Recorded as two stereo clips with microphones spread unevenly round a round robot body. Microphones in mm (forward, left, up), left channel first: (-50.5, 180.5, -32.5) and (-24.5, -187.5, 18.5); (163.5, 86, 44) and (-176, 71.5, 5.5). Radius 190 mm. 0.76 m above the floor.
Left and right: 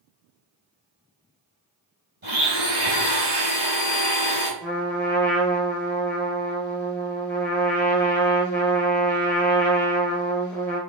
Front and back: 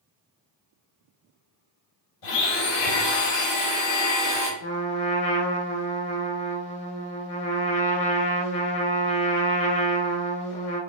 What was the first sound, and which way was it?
A blender, 20° right.